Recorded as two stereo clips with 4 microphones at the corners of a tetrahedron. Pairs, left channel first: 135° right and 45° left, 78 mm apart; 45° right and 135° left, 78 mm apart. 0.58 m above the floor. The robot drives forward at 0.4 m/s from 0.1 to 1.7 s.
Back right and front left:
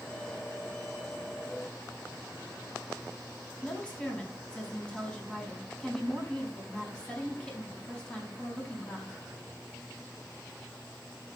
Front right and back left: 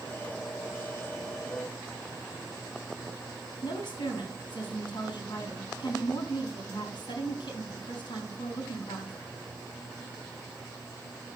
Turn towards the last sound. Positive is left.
turn(degrees=-60)